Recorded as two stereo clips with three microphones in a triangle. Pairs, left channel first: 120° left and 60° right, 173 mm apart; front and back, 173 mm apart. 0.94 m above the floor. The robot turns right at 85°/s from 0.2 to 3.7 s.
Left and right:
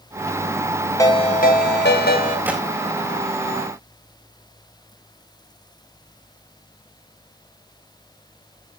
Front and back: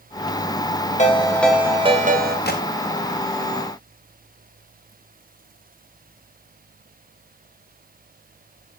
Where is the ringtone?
45° left, 3.5 m; by 2.4 s 165° left, 3.5 m.